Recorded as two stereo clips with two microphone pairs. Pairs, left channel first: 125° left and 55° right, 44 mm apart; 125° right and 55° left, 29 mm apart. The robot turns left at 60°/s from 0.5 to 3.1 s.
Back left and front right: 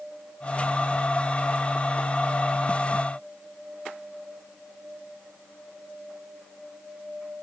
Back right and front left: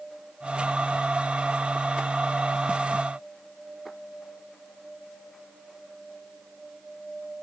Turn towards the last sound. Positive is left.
No sound to turn to.